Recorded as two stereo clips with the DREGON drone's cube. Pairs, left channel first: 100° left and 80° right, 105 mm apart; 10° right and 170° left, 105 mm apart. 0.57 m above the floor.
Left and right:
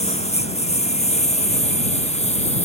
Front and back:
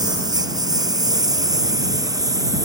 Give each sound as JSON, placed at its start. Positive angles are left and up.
{"t": 0.0, "sound": "a lawn mower", "azimuth_deg": 115}